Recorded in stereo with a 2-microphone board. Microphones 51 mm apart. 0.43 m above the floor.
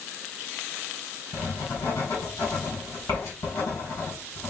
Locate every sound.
1.3 s writing: 70° left (ahead or behind), 2.5 m